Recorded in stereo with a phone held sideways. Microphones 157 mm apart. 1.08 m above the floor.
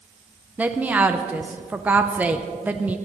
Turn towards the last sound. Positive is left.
turn(degrees=-10)  # may be behind; listen again after turning